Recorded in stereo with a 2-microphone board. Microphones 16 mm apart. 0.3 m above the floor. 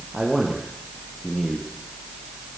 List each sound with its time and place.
0.1 s a man speaking: 20° right (ahead or behind), 7.5 m; by 1.7 s 10° right (ahead or behind), 8 m